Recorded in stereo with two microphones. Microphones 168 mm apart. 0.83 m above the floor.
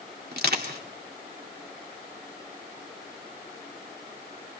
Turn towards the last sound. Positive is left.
turn(degrees=-70)  # may be behind; listen again after turning